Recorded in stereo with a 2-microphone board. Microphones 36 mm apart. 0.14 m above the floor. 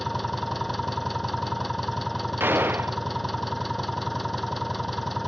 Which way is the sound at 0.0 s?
Centre (ahead or behind).